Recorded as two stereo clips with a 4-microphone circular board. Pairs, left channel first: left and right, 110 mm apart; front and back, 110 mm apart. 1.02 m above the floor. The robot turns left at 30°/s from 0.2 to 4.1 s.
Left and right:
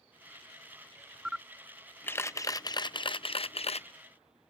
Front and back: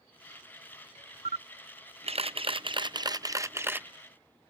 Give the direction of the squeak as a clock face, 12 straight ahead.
I don't hear a squeak.